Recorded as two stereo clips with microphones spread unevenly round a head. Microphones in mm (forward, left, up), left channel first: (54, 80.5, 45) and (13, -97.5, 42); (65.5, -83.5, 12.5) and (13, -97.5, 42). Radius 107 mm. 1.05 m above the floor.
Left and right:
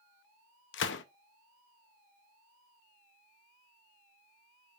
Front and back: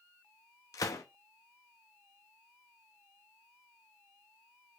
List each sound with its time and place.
0.7 s a gunshot: 55° left, 0.7 m